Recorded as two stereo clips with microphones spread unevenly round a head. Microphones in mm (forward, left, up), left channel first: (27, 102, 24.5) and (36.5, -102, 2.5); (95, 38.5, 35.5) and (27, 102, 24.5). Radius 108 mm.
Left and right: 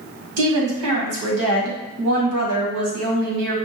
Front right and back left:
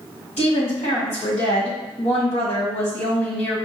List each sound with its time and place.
0.4 s a woman speaking: 85° right, 1.7 m